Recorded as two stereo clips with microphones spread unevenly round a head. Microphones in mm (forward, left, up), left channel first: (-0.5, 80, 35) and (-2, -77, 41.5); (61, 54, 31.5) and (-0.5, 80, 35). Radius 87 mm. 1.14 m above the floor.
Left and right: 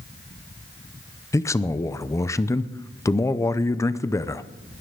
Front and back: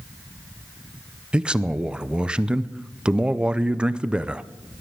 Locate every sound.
1.3 s a man speaking: 100° left, 0.6 m